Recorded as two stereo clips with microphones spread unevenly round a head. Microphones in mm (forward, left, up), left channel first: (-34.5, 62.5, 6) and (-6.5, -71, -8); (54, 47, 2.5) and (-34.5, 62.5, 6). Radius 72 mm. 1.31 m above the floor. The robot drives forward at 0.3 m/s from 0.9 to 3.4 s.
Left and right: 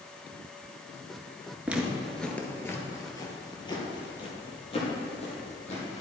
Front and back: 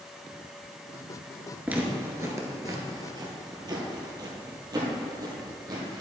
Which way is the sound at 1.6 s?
160° right.